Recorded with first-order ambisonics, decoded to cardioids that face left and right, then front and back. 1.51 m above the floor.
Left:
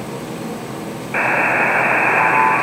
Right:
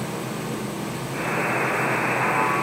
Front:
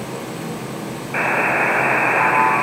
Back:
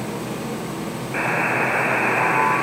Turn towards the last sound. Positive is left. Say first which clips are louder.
# left 9 dB, front 3 dB
turn(degrees=75)